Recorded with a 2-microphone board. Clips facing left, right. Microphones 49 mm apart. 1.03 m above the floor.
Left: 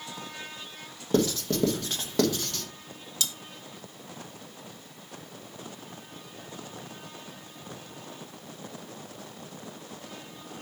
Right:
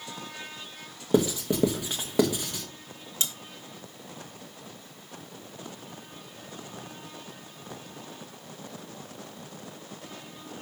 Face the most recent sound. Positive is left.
turn(degrees=-30)  # may be behind; listen again after turning